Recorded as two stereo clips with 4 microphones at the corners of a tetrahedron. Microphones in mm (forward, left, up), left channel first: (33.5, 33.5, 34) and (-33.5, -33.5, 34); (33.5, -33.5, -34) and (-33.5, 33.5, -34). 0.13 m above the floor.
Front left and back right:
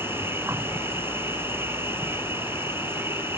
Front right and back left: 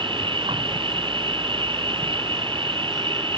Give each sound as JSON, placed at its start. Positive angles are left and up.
{"t": 0.0, "sound": "an insect", "azimuth_deg": 160}